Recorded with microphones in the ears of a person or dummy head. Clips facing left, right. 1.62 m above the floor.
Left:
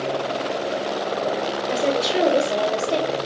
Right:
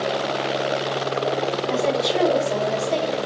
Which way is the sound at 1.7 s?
20° left (ahead or behind).